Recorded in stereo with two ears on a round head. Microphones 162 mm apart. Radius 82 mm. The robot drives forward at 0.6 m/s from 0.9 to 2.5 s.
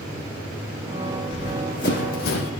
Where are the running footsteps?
40° left (ahead or behind), 3.5 m; by 2.5 s 60° left (ahead or behind), 1.5 m.